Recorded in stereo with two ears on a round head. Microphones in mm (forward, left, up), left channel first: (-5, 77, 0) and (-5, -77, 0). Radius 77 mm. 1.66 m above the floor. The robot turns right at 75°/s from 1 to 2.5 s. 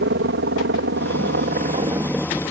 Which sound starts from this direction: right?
A helicopter, at 0.0 s.